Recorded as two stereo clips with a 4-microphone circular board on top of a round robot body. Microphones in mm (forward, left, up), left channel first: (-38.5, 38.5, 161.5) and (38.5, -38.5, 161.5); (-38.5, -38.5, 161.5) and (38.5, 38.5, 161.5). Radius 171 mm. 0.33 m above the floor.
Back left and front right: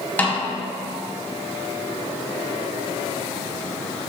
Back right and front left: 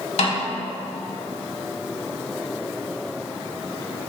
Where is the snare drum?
150° right, 3.5 m.